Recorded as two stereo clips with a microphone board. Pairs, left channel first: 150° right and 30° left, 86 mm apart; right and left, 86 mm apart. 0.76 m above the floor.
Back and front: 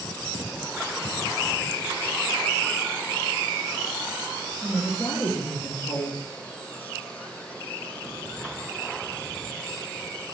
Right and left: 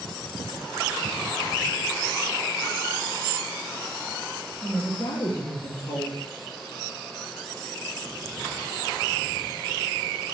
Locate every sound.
4.6 s a woman speaking: 110° right, 1.4 m